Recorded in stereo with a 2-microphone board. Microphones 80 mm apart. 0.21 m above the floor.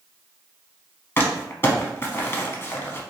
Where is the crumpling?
30° left (ahead or behind), 0.6 m.